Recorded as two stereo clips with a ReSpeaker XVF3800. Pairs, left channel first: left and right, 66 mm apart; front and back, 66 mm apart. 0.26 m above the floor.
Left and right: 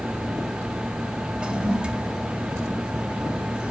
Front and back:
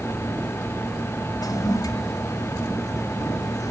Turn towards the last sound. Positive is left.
turn(degrees=-15)